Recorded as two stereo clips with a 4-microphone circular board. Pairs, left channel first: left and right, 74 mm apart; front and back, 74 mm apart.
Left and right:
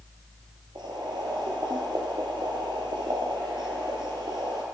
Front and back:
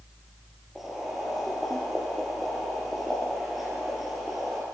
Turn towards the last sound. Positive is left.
turn(degrees=-90)